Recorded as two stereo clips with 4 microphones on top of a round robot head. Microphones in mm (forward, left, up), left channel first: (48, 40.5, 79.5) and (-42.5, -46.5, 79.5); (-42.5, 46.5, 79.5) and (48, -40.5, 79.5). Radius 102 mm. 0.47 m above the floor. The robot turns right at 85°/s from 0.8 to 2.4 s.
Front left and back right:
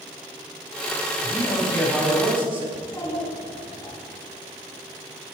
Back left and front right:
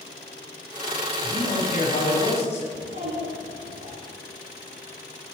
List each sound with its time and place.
1.2 s a man speaking: 75° left, 3.5 m; by 2.6 s 175° left, 3.5 m
2.7 s a child speaking: 30° right, 4.5 m